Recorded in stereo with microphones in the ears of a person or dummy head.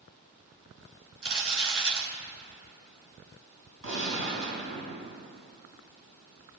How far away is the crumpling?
About 4.5 m.